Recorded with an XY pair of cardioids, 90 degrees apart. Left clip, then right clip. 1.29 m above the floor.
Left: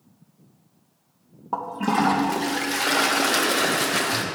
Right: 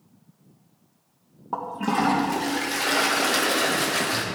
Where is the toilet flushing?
15° left, 1.5 m.